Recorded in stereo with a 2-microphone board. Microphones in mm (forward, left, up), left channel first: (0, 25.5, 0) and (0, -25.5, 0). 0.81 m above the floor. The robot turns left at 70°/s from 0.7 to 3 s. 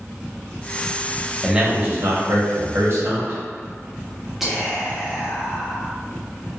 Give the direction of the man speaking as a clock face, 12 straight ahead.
12 o'clock.